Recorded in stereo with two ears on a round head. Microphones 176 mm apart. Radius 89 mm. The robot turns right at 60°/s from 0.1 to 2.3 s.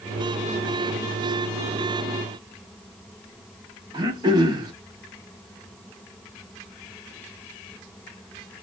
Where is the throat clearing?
20° right (ahead or behind), 0.8 m.